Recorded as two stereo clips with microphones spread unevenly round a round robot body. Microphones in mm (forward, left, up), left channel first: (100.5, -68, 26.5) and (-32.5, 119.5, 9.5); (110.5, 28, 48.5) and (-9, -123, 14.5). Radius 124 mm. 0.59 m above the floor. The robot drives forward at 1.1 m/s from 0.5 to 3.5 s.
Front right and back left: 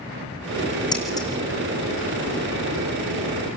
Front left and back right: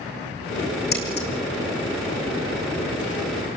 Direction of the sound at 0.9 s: 20° left.